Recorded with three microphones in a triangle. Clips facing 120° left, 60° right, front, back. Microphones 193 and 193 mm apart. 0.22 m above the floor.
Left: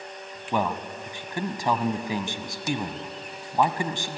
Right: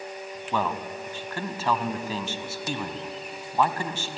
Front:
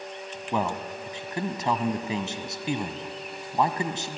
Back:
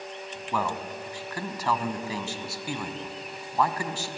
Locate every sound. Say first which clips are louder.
0.5 s a man speaking: left 2 dB, front 2 dB; 55° left, 1.3 m